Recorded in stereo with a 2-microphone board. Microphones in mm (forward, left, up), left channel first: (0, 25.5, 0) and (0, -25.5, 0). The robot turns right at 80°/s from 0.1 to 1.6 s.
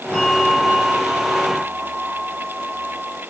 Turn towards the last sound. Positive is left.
turn(degrees=-80)